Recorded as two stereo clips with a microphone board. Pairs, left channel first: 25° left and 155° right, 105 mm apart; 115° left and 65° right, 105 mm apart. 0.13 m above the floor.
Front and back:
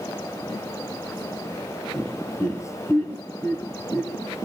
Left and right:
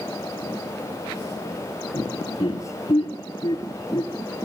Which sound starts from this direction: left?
Laughter, at 1.9 s.